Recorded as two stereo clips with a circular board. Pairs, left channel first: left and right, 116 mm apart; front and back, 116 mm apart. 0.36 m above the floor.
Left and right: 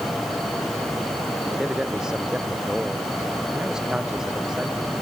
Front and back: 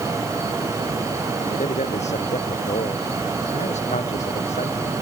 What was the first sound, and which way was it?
A man speaking, 5° right.